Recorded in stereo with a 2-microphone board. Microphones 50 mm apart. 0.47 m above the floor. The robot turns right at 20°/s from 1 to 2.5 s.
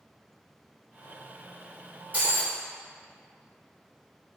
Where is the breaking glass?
30° right (ahead or behind), 2.5 m; by 2.6 s 25° right (ahead or behind), 2.5 m.